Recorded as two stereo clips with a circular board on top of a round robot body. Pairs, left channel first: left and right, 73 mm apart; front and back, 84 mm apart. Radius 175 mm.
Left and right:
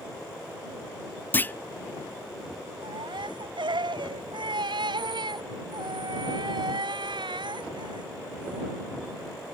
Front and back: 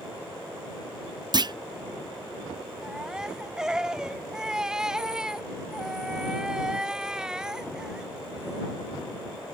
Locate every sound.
1.3 s a clunk: 150° left
2.8 s a baby crying: 95° right